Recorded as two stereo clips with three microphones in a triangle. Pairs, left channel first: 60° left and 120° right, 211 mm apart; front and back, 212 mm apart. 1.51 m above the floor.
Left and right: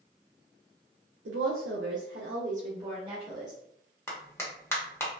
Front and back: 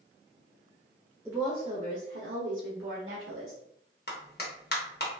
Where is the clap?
15° right, 0.8 m.